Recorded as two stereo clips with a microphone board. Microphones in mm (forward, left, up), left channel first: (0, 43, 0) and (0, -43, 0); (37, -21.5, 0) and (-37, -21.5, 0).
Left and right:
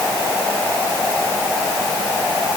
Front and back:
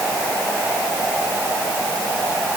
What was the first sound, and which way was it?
Only background noise.